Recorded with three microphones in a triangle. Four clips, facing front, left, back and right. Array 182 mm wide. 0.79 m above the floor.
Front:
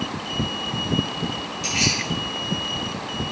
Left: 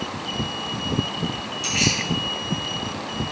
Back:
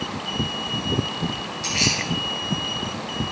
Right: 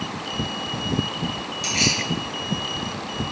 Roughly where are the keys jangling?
Behind right.